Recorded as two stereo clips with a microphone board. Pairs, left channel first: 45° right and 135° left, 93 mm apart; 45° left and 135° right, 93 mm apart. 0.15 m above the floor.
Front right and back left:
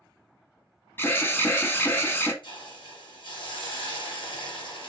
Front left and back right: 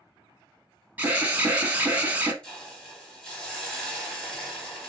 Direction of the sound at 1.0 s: 80° right.